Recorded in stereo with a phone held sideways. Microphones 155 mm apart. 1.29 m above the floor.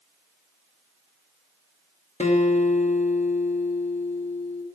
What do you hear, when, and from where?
2.2 s a guitar: 50° left (ahead or behind), 1.3 m